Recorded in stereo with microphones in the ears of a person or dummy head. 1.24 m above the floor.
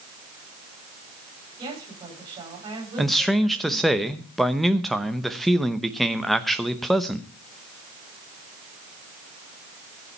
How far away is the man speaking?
About 0.9 m.